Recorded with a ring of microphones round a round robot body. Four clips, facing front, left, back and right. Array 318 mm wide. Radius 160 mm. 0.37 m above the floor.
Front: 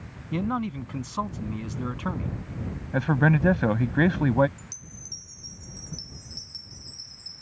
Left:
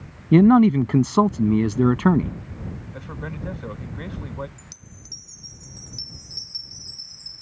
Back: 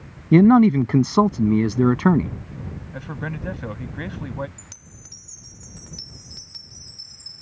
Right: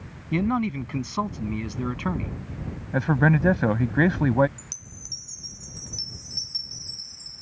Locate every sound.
0.3 s a man speaking: 140° left
2.9 s a man speaking: 55° right
4.6 s a chime: 165° right